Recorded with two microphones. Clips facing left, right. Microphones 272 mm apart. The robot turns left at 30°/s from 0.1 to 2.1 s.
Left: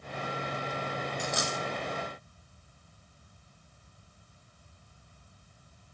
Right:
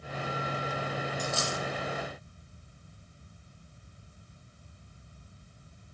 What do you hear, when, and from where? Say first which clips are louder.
1.2 s a dropped coin: even; 10° left (ahead or behind), 1.8 m; by 1.6 s 20° left (ahead or behind), 1.8 m